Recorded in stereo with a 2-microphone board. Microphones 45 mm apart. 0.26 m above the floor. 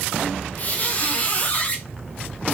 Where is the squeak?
35° left (ahead or behind), 1.0 m.